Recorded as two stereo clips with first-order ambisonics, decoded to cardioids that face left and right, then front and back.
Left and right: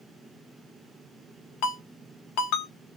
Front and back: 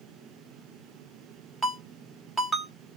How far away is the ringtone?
About 1.1 m.